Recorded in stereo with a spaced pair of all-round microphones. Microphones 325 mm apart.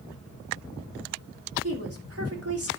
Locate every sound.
1.6 s a woman speaking: 45° right (ahead or behind), 3 m